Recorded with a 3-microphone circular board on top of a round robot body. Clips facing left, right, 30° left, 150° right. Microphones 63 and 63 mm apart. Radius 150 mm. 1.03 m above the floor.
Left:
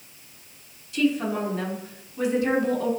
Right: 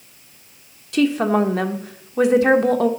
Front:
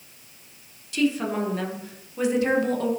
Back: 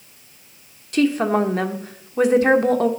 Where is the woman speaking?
105° right, 1.2 m.